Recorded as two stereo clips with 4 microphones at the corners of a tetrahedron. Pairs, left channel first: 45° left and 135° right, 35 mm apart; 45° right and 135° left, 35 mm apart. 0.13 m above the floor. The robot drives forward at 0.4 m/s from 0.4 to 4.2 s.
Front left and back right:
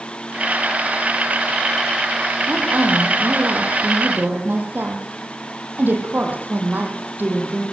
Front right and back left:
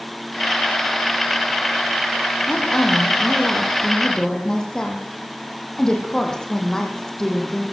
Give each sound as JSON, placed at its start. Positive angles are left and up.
{"t": 2.5, "sound": "a woman speaking", "azimuth_deg": -105, "distance_m": 4.5}